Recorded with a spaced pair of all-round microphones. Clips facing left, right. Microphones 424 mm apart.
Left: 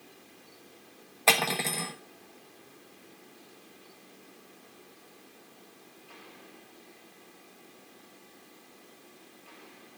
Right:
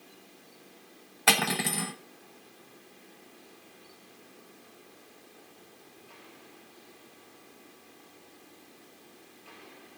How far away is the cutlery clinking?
About 1.0 m.